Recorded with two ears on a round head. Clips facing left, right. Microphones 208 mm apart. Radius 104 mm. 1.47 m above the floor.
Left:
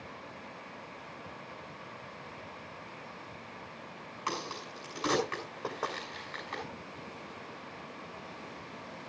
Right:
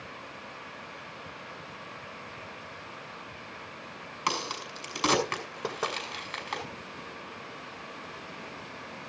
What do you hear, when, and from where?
4.3 s a crack: 60° right (ahead or behind), 6.5 m
5.6 s knocking: 35° right (ahead or behind), 4.5 m